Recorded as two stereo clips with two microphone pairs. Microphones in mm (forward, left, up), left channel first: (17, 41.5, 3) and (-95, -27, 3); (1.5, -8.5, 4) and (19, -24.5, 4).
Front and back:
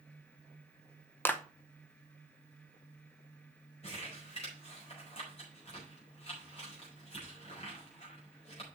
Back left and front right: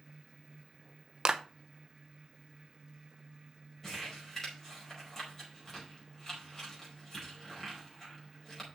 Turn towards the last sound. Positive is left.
turn(degrees=70)